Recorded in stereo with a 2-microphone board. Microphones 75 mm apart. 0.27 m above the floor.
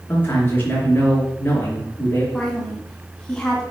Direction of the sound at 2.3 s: 10° left (ahead or behind).